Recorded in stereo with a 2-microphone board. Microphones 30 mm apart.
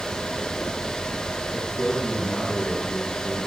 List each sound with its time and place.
1.5 s a man speaking: 20° left (ahead or behind), 6.5 m